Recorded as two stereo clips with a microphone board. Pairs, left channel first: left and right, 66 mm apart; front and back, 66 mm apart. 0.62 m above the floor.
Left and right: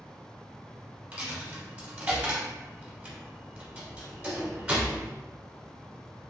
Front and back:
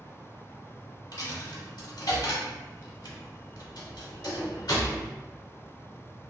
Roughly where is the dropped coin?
Ahead.